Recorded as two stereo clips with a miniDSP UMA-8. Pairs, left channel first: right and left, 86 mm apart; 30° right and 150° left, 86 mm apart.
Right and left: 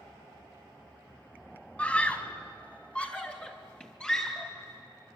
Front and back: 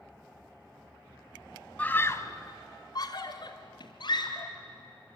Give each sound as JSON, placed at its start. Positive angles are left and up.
{"t": 1.8, "sound": "a scream", "azimuth_deg": -55, "distance_m": 1.3}